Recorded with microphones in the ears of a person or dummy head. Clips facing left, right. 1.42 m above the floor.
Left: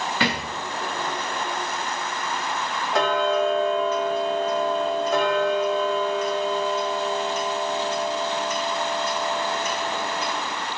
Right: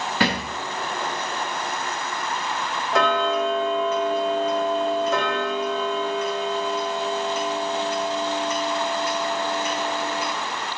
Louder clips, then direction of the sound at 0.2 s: Right 4 dB; 30° right (ahead or behind).